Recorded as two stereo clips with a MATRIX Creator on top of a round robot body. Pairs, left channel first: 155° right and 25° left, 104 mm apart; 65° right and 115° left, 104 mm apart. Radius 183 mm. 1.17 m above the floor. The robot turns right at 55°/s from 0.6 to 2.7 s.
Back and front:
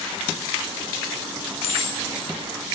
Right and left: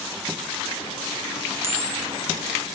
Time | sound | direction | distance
1.6 | a camera shutter | straight behind | 0.9 m